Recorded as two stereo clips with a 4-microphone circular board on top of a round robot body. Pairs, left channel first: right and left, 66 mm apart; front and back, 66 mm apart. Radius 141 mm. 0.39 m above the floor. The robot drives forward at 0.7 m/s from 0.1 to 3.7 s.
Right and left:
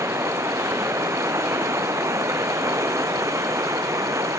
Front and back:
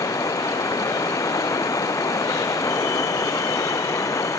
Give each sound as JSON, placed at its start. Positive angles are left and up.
{"t": 0.0, "sound": "running water", "azimuth_deg": 40}